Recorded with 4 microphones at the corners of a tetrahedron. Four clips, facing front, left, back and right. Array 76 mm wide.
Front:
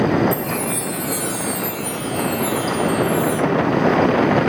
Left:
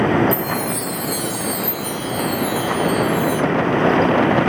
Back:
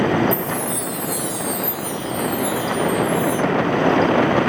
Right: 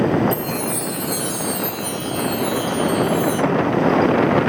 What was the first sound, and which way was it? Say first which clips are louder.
A chime: left 2 dB, front 1 dB; 5° left.